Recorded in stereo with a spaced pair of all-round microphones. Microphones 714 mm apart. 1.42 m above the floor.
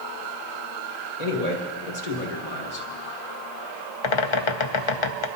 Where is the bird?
50° left (ahead or behind), 0.6 m.